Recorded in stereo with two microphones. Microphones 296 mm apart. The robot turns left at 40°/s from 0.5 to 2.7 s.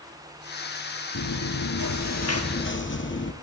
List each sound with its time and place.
1.1 s chewing: 100° left, 2 m; by 3.3 s 40° left, 2 m